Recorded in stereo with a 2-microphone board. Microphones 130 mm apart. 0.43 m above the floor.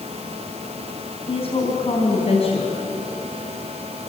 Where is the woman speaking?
50° left (ahead or behind), 4 m.